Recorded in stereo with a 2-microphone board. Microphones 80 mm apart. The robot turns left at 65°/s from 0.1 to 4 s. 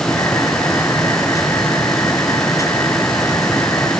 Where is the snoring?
No snoring in this recording.